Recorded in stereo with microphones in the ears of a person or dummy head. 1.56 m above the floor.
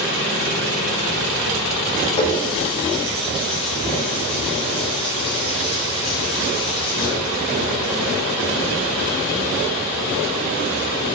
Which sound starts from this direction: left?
A running tap, at 2.2 s.